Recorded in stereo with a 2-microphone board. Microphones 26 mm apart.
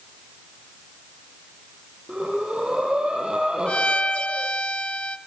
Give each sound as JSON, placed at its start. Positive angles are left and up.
{"t": 2.1, "sound": "breathing", "side_deg": -40, "distance_m": 7.0}
{"t": 3.7, "sound": "a violin", "side_deg": 45, "distance_m": 1.5}